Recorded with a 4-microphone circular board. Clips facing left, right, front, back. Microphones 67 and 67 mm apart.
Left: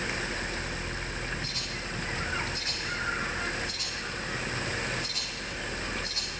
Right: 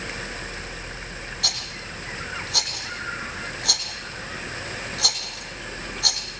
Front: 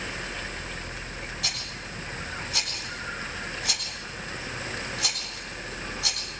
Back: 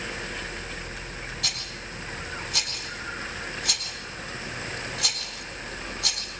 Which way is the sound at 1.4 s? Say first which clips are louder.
Right 2 dB, even; 85° right.